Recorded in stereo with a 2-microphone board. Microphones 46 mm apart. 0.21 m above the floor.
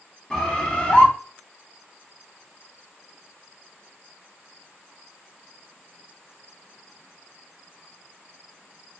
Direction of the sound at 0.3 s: 20° left (ahead or behind).